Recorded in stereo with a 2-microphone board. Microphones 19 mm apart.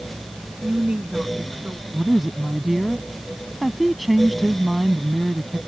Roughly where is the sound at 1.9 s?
Centre.